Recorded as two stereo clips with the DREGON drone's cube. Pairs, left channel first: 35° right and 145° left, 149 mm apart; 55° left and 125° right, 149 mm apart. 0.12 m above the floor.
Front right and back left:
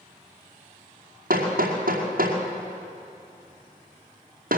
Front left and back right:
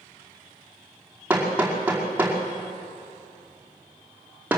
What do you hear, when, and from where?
1.3 s hammering: 155° left, 5 m